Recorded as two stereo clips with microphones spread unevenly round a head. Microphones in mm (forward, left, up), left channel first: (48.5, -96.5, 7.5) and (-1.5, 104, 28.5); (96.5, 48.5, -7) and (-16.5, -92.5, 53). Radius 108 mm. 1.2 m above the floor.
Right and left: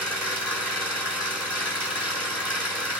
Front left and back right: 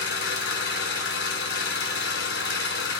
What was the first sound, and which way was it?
An engine running, 30° left.